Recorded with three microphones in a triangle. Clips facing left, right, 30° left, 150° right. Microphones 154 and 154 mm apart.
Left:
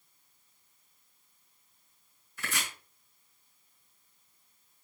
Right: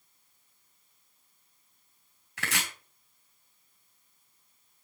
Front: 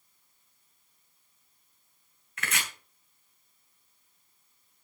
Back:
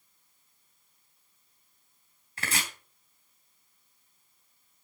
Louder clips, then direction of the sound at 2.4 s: Right 3 dB, back 1 dB; 90° right.